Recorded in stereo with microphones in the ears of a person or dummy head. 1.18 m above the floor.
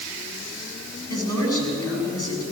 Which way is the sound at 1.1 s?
10° left (ahead or behind).